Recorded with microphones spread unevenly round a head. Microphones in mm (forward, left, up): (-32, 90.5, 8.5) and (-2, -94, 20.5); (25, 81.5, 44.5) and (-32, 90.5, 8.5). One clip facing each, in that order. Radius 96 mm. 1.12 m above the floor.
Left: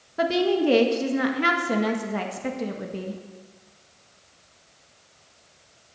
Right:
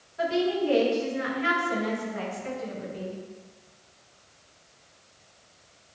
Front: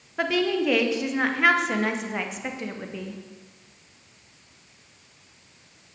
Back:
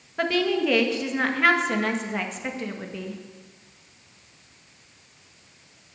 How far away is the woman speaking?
About 1.8 m.